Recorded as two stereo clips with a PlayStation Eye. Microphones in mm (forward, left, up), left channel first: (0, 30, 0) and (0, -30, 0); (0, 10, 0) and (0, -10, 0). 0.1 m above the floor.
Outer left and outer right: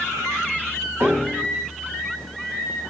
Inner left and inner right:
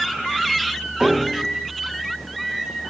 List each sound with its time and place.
1.0 s a piano: 50° right (ahead or behind), 3.5 m